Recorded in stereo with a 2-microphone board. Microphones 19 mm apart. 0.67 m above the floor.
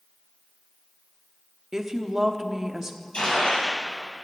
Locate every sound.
1.7 s a woman speaking: 30° right (ahead or behind), 1.0 m
3.1 s a gunshot: 65° left (ahead or behind), 6 m